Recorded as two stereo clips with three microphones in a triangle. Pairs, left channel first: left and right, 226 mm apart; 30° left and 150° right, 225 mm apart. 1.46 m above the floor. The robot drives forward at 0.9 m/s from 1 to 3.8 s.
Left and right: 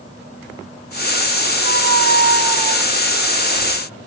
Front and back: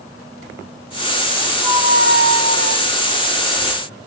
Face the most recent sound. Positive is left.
turn(degrees=-165)